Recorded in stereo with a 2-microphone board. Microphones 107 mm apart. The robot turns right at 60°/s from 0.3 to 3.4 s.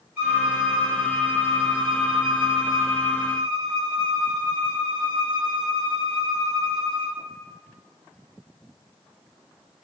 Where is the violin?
25° right, 1.4 m; by 7.2 s 160° left, 1.4 m.